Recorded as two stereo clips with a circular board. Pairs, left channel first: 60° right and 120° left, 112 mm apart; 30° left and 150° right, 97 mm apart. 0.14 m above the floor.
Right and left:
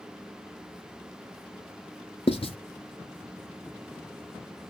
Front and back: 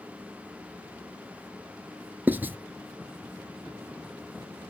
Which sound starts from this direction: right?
Writing, at 2.3 s.